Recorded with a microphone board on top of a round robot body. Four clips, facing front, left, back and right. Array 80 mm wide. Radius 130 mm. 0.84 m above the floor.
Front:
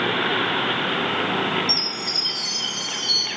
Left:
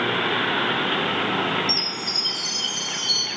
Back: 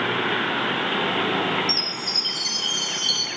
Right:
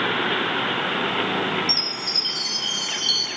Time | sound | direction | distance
1.7 | a chime | 155° right | 3.5 m